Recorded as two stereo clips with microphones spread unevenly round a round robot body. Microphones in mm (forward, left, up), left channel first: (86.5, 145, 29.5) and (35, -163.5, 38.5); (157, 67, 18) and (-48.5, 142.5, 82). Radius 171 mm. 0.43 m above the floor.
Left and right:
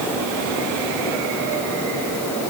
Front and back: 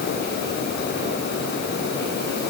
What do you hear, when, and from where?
Only background noise.